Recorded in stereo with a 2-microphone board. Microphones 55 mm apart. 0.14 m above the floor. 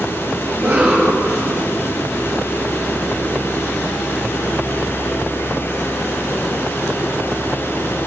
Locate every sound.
0.5 s a cough: 35° right (ahead or behind), 4 m